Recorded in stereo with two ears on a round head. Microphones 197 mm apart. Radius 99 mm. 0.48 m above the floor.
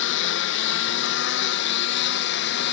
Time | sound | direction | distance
0.0 | a lawn mower | 65° left (ahead or behind) | ?